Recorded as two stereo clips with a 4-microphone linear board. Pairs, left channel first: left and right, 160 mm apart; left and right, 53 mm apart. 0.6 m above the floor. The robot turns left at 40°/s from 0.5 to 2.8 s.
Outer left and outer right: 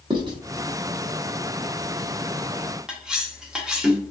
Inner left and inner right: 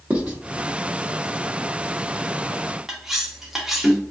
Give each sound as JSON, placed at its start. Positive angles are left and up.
{"t": 0.1, "sound": "writing", "side_deg": -30, "distance_m": 0.9}
{"t": 2.9, "sound": "cutlery clinking", "side_deg": -5, "distance_m": 0.7}